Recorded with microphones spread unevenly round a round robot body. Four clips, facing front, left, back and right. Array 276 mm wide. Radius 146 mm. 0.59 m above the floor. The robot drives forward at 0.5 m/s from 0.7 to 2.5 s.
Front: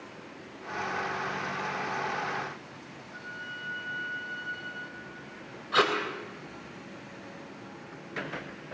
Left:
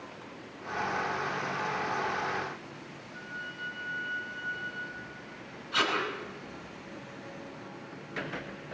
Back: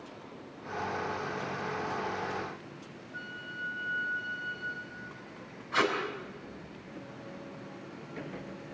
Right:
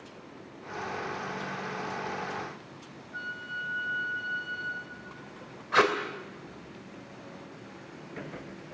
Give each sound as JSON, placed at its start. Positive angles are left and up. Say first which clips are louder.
{"t": 3.1, "sound": "a flute", "louder": "right 5 dB, front 1 dB", "azimuth_deg": -90, "distance_m": 3.5}
{"t": 5.7, "sound": "tape being pulled", "louder": "right 6 dB, front 3 dB", "azimuth_deg": -55, "distance_m": 3.5}